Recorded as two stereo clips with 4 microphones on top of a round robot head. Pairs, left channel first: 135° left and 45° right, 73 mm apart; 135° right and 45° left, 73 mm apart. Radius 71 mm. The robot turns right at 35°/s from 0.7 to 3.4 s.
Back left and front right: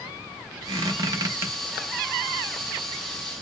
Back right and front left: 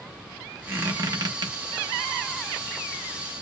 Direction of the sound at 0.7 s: 10° right.